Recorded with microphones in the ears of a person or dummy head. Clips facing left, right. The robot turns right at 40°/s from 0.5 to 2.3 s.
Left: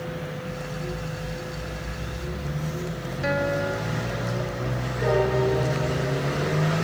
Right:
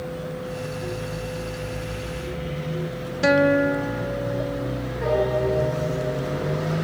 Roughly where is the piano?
Centre.